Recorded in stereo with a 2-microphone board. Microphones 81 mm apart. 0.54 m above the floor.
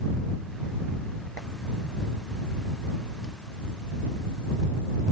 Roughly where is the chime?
No chime in this recording.